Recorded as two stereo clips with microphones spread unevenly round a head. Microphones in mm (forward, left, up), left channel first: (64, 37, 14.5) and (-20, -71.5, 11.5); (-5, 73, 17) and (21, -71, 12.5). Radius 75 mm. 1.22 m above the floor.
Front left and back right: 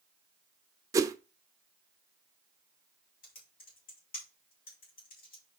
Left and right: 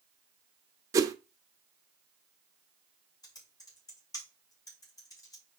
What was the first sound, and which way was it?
A whoosh, 110° right.